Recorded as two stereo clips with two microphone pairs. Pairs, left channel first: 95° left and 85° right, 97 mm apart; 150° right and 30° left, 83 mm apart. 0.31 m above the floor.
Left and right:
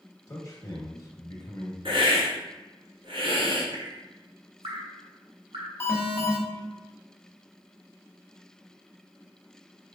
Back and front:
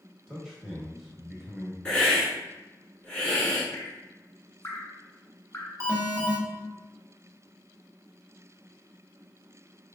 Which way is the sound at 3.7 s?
100° right.